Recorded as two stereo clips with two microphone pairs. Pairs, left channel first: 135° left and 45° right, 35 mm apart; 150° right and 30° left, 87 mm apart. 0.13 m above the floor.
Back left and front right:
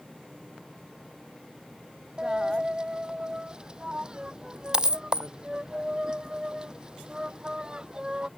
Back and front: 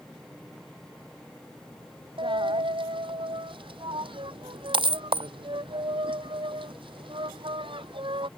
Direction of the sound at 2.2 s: 20° left.